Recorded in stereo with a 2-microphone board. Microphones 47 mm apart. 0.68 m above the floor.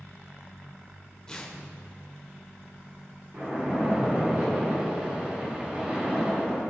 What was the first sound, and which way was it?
Tearing paper, 15° left (ahead or behind).